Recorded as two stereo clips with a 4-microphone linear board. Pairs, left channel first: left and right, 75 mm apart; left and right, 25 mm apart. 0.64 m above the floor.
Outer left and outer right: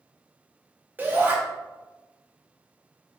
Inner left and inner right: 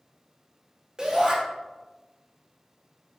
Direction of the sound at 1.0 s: 25° right (ahead or behind).